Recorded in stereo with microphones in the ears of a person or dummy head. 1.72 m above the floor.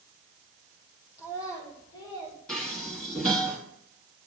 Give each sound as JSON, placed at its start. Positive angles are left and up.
{"t": 1.2, "sound": "a child speaking", "side_deg": 20, "distance_m": 1.5}
{"t": 2.5, "sound": "dishes clattering", "side_deg": 0, "distance_m": 1.9}